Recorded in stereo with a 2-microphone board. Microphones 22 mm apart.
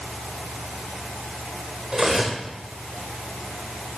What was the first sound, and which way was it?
Cutlery clinking, 25° right (ahead or behind).